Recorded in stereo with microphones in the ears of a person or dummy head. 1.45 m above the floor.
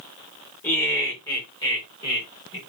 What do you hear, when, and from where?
0.6 s laughter: 15° left (ahead or behind), 4.5 m; by 2.6 s 25° left (ahead or behind), 5.5 m